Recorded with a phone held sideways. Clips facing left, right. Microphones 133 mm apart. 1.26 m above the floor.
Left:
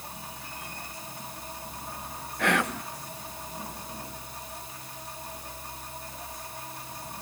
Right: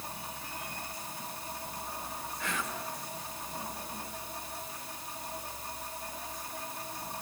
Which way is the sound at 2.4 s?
70° left (ahead or behind).